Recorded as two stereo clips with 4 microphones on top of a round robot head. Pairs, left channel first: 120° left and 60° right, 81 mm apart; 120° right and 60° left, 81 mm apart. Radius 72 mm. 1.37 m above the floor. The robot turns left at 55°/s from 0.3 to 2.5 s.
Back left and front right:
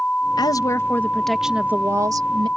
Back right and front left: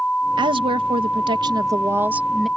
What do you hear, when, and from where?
0.4 s a woman speaking: 85° left; by 2.5 s 35° right